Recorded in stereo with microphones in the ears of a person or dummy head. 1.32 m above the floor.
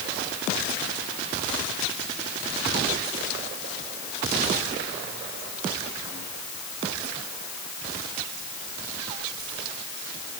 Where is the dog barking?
I don't hear a dog barking.